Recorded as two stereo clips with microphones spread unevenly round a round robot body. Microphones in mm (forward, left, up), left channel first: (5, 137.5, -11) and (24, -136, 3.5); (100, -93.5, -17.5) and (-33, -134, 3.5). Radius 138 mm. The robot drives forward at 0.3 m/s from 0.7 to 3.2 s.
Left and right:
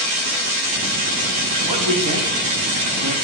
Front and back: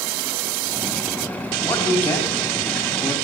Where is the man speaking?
60° right, 4 m; by 3.1 s 65° right, 3.5 m.